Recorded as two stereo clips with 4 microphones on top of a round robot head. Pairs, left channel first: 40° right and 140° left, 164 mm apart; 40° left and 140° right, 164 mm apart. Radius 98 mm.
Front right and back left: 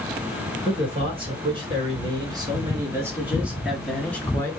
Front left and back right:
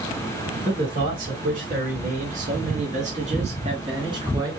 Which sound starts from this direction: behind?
A man speaking, at 0.7 s.